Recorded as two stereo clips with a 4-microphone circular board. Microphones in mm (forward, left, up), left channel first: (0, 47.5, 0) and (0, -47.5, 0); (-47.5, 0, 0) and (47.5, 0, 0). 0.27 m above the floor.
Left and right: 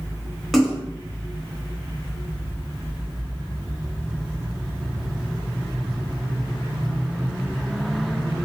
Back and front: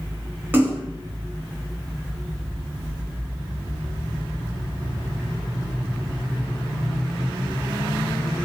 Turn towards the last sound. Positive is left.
turn(degrees=5)